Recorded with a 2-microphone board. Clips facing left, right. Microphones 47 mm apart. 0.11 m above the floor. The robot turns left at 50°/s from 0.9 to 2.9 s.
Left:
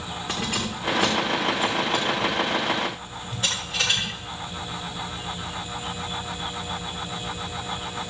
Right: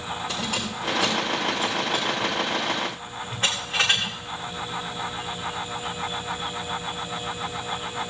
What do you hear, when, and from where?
0.3 s keys jangling: 55° left (ahead or behind), 7 m; by 4.1 s 40° right (ahead or behind), 7 m